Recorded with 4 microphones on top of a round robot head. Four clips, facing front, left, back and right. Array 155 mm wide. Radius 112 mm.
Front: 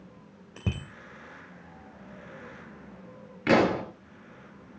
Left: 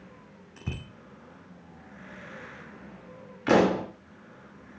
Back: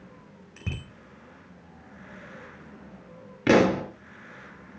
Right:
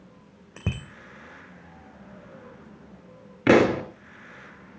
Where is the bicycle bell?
60° right, 4 m.